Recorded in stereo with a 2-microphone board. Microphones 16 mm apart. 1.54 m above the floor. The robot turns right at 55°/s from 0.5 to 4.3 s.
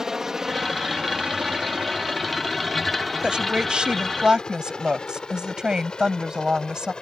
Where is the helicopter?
25° right (ahead or behind); by 7.0 s 50° left (ahead or behind).